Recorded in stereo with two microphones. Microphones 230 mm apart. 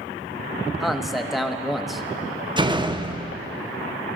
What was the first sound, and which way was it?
A man speaking, centre (ahead or behind).